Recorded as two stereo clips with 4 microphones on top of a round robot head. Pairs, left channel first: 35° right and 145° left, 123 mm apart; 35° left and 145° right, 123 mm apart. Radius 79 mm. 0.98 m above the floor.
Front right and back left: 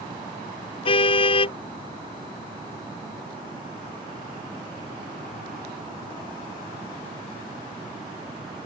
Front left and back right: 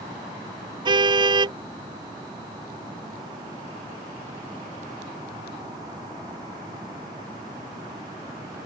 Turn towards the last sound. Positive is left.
turn(degrees=-85)